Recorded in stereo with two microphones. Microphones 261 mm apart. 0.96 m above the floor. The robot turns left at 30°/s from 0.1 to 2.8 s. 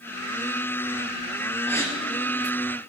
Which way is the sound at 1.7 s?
5° left (ahead or behind).